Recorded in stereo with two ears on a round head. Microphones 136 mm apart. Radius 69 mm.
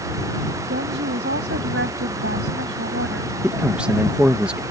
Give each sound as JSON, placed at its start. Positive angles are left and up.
{"t": 0.7, "sound": "a woman speaking", "side_deg": -85}
{"t": 3.4, "sound": "a man speaking", "side_deg": -10}